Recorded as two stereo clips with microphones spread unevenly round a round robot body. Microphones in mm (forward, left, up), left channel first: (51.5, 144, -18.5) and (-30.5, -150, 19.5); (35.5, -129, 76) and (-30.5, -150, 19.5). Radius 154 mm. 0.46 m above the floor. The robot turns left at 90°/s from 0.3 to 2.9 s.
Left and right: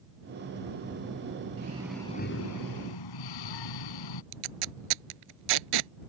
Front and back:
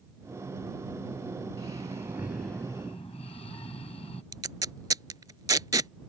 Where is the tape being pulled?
125° right.